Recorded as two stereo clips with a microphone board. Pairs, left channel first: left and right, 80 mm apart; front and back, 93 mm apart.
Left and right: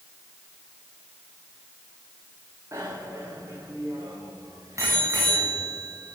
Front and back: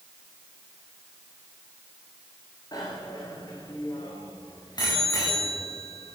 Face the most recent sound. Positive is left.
turn(degrees=-40)